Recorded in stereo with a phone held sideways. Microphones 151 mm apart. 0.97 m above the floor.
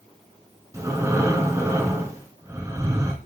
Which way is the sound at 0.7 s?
20° right (ahead or behind).